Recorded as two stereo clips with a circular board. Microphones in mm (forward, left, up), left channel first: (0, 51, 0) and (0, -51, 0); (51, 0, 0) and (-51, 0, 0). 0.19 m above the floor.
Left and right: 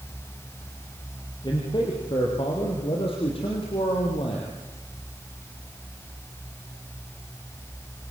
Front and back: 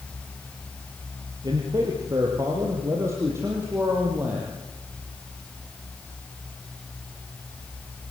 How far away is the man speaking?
About 5 m.